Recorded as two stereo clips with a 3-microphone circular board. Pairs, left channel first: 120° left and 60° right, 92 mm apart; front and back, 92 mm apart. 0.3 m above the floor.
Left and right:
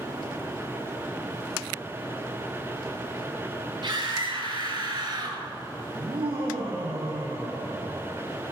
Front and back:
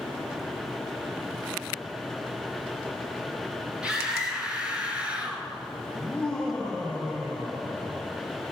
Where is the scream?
100° right, 7.5 m; by 5.5 s 105° right, 5 m.